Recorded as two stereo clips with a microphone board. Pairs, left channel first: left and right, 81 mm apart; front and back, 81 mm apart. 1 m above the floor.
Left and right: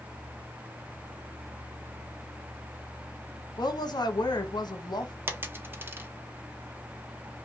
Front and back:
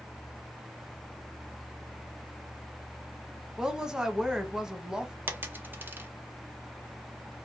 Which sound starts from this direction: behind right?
A dropped coin, at 5.3 s.